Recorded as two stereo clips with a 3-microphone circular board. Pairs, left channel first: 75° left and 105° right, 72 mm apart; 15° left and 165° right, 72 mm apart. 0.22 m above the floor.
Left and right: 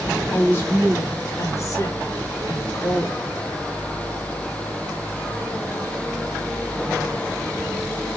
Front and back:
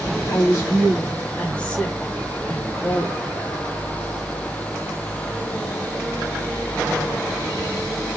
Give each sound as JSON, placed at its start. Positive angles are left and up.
{"t": 0.3, "sound": "a woman speaking", "azimuth_deg": 30, "distance_m": 1.1}